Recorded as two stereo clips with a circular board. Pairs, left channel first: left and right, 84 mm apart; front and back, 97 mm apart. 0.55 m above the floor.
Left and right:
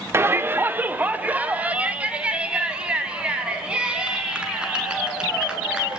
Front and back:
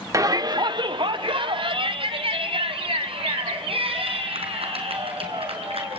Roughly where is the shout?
Behind right.